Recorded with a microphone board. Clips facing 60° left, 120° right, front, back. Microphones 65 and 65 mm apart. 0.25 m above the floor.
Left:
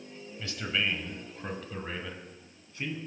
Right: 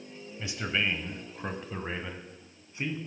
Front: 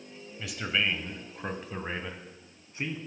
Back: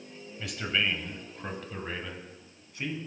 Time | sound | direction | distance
0.4 | a man speaking | 90° right | 0.9 m